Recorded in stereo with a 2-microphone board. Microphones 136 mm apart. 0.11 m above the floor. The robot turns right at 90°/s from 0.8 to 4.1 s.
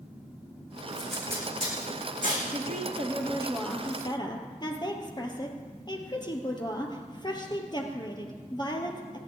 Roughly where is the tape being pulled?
Centre.